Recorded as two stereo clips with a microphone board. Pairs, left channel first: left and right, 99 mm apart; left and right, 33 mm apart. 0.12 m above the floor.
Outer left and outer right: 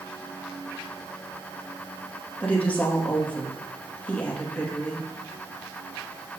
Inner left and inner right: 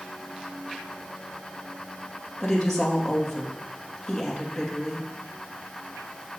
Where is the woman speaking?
15° left (ahead or behind), 2.5 m.